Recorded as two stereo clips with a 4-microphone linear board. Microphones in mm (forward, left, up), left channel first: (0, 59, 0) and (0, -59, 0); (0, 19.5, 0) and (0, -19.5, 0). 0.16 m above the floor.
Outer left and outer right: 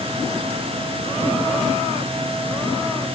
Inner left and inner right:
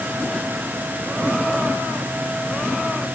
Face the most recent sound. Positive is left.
No sound to turn to.